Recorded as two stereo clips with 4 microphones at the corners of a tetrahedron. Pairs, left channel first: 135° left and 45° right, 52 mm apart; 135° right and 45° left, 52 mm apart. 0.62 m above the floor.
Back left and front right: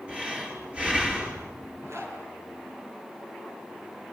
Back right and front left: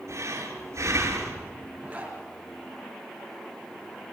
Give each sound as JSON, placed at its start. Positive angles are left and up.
{"t": 0.1, "sound": "breathing", "azimuth_deg": 25, "distance_m": 6.0}
{"t": 1.8, "sound": "a zipper", "azimuth_deg": -20, "distance_m": 7.0}